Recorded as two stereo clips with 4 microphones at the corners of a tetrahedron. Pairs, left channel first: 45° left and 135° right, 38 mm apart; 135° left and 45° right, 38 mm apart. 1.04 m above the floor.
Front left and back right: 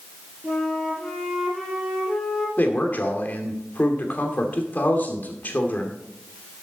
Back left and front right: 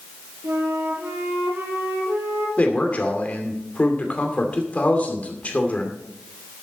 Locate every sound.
0.4 s a flute: 40° right, 3.5 m
2.6 s a man speaking: 85° left, 2.5 m